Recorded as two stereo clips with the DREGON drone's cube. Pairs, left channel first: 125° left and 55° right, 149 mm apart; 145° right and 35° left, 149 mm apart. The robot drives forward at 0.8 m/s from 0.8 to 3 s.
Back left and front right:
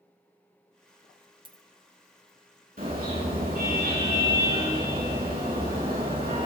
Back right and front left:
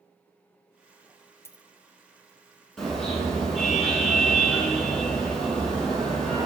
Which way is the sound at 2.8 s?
60° right.